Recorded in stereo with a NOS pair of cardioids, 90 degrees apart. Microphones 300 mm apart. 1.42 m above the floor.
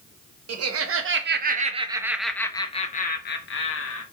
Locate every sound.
0.5 s laughter: 55° right, 1.2 m; by 4.0 s 45° left, 1.4 m